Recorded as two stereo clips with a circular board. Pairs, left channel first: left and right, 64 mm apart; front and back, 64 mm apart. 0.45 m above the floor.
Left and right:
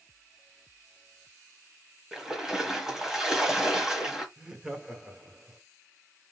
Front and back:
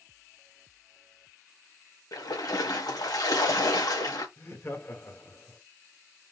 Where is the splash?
10° right, 1.4 m.